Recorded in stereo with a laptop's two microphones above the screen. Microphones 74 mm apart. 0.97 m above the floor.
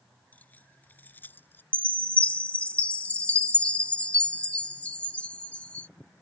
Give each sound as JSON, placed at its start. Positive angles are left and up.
{"t": 0.3, "sound": "keys jangling", "side_deg": 25}
{"t": 1.7, "sound": "a chime", "side_deg": 20}